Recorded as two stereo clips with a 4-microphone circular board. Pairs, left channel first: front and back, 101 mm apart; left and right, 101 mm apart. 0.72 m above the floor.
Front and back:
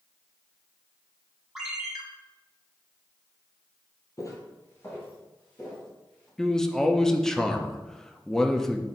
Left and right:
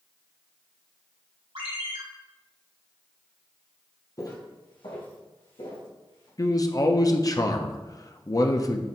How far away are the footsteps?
About 1.2 m.